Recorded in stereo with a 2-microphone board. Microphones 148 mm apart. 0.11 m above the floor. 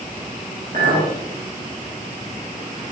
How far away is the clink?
About 6.5 m.